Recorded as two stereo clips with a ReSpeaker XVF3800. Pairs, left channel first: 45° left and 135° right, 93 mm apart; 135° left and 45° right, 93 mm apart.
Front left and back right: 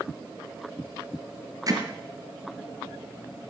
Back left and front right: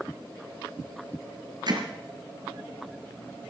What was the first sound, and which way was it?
Hammering, 85° right.